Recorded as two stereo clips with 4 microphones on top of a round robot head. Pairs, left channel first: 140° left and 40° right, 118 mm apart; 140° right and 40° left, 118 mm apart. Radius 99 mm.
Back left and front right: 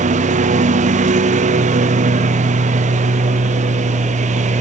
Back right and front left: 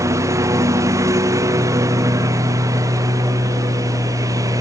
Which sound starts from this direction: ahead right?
A lawn mower, at 0.0 s.